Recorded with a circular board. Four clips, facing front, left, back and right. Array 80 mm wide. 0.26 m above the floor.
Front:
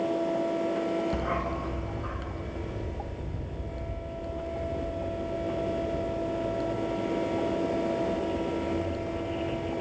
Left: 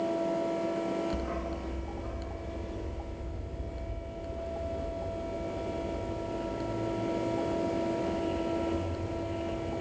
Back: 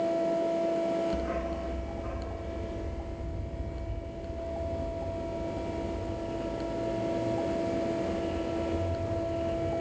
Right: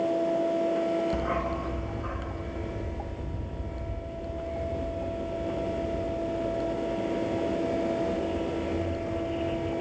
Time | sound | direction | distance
1.1 | a dog barking | 40° right | 0.8 m